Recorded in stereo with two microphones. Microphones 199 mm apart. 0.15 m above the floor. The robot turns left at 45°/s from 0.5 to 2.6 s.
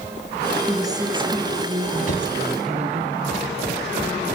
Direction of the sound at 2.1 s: 65° left (ahead or behind).